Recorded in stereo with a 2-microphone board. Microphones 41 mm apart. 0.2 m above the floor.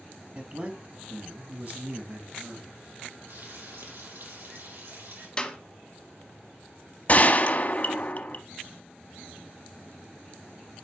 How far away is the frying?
About 5.5 m.